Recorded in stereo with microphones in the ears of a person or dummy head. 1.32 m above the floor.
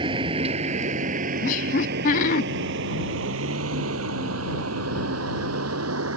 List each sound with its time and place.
0.0 s a vehicle: 25° right (ahead or behind); by 6.2 s 85° right
1.4 s laughter: 45° left (ahead or behind)